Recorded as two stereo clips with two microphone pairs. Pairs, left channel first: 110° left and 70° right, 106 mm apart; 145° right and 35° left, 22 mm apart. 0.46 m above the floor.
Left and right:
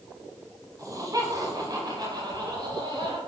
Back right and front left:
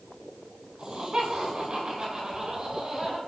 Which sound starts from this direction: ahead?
Laughter, at 0.8 s.